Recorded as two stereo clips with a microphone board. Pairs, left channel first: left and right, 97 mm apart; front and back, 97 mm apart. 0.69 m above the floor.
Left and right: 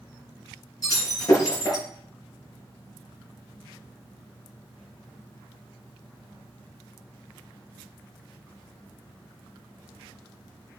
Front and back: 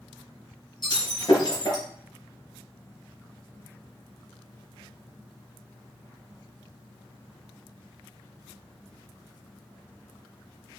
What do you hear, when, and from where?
0.8 s breaking glass: 40° left, 4 m